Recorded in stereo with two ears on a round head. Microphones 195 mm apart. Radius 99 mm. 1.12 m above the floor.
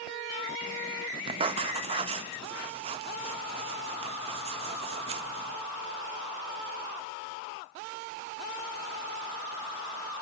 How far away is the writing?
About 0.8 m.